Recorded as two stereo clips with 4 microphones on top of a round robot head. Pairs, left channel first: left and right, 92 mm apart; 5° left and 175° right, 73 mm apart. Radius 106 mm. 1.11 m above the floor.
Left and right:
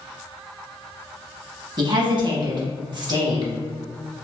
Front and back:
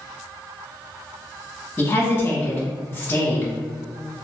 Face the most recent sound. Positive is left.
turn(degrees=-55)